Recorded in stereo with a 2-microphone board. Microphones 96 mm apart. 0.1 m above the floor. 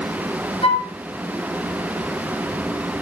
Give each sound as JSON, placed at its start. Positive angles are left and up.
{"t": 0.6, "sound": "a flute", "side_deg": 70, "distance_m": 3.0}